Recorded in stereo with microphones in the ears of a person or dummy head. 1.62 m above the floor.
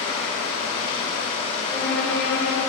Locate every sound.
0.0 s running water: 25° left (ahead or behind), 1.4 m
1.7 s a violin: 55° left (ahead or behind), 4 m